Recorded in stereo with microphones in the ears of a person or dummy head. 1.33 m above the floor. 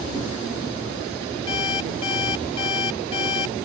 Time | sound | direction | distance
1.5 | an alarm clock | 30° left (ahead or behind) | ?